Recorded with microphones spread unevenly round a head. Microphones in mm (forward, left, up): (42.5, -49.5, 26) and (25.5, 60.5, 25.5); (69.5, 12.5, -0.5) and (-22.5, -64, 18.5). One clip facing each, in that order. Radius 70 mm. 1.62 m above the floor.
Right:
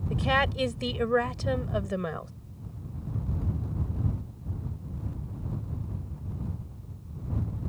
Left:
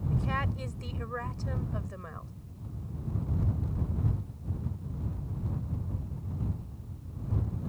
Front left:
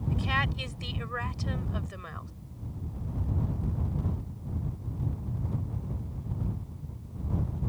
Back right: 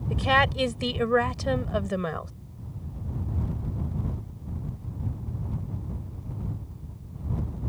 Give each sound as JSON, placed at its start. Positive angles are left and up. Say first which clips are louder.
{"t": 0.1, "sound": "a woman speaking", "louder": "right 8 dB, back right 10 dB", "azimuth_deg": -120}